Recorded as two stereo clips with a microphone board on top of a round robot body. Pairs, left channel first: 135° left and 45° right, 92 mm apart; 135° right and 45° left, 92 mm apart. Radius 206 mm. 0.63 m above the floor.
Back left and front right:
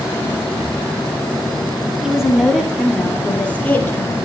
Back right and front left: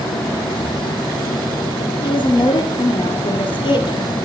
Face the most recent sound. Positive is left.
turn(degrees=-165)